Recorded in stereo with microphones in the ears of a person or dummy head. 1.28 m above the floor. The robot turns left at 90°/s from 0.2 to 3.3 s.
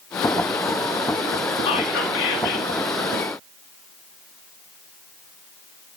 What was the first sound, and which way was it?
Whispering, 150° left.